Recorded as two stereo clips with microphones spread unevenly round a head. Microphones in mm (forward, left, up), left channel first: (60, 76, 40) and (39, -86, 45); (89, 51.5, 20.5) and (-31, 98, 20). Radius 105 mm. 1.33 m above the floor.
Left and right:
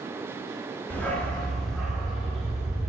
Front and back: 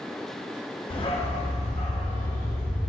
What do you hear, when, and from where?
0.9 s a dog barking: 5° left, 1.0 m; by 2.9 s 10° right, 2.5 m